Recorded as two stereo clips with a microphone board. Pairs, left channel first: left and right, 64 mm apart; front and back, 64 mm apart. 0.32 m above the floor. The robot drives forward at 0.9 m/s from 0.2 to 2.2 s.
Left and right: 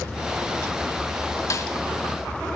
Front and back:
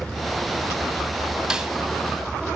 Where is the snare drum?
100° left, 1.7 m; by 1.7 s 110° left, 1.8 m.